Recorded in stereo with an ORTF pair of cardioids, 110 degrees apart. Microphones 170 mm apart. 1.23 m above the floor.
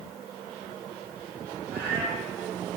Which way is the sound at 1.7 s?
65° right.